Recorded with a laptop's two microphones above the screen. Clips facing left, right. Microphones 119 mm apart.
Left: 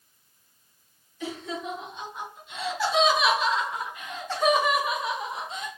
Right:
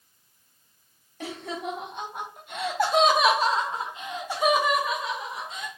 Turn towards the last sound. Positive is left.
turn(degrees=30)  # may be behind; listen again after turning